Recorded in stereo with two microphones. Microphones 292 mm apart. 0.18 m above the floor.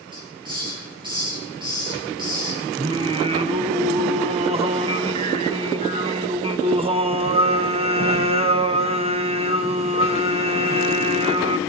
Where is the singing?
20° right (ahead or behind), 0.8 m.